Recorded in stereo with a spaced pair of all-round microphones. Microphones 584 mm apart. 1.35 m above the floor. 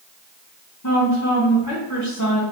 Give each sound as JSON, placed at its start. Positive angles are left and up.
{"t": 0.8, "sound": "a woman speaking", "side_deg": 30, "distance_m": 1.0}